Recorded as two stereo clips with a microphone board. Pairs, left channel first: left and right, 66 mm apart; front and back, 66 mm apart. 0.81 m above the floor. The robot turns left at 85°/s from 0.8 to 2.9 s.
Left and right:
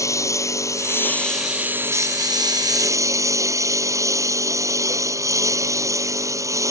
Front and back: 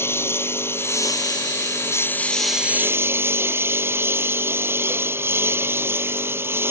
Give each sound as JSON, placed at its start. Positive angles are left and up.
{"t": 0.0, "sound": "a lawn mower", "azimuth_deg": 50}